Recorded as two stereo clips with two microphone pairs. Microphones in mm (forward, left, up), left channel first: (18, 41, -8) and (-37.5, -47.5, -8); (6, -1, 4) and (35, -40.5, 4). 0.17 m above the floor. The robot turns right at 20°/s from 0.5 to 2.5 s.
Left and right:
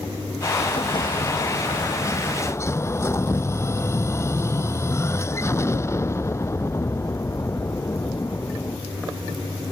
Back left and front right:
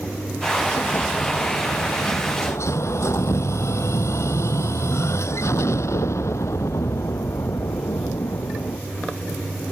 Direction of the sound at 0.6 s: 80° left.